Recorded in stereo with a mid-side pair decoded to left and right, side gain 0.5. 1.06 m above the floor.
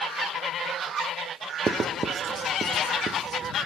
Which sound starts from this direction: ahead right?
Writing, at 1.7 s.